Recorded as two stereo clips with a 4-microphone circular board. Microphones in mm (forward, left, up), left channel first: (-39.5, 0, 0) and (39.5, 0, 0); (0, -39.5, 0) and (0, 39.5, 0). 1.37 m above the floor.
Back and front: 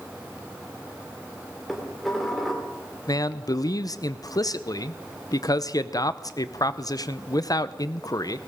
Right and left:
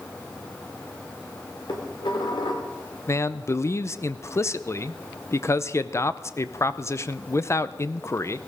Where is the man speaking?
145° right, 0.6 m.